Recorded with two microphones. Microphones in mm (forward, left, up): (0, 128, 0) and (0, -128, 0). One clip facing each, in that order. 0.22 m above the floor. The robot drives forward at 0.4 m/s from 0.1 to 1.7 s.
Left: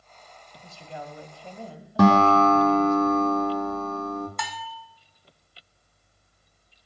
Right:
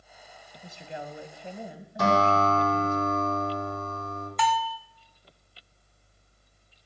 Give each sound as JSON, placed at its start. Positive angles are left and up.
{"t": 0.6, "sound": "a woman speaking", "side_deg": -20, "distance_m": 1.0}
{"t": 2.0, "sound": "a guitar", "side_deg": 70, "distance_m": 1.9}
{"t": 4.4, "sound": "a bell", "side_deg": 50, "distance_m": 0.8}